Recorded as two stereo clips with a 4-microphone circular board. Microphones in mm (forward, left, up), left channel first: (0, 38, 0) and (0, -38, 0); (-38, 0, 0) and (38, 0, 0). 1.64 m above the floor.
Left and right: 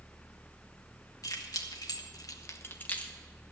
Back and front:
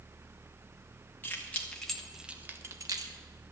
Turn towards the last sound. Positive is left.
turn(degrees=15)